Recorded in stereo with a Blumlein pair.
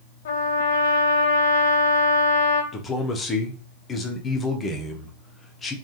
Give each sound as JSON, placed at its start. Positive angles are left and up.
{"t": 0.2, "sound": "a trumpet", "azimuth_deg": 60, "distance_m": 0.8}
{"t": 2.7, "sound": "a man speaking", "azimuth_deg": 15, "distance_m": 0.8}